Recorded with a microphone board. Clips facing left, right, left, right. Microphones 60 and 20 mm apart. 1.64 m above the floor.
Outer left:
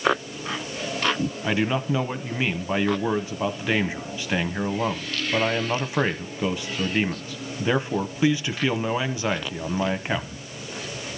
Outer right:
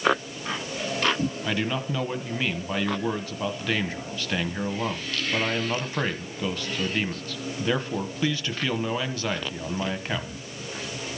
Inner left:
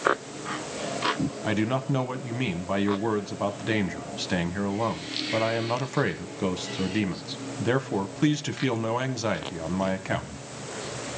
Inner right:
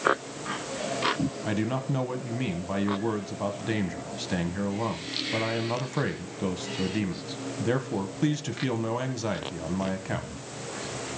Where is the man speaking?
15° left (ahead or behind), 1.1 m.